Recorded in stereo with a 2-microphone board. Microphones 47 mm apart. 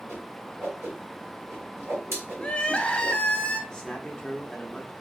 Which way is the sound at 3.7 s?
20° left (ahead or behind).